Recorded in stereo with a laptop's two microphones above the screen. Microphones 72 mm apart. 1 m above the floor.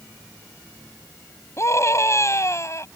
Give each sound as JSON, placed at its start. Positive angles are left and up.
{"t": 1.6, "sound": "a scream", "side_deg": 40}